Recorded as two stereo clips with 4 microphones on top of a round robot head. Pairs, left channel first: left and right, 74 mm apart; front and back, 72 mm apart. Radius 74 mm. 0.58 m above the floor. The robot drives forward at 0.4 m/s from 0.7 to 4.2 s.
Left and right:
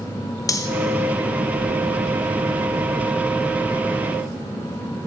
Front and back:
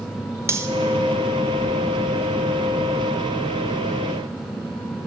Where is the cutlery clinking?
130° left, 0.7 m.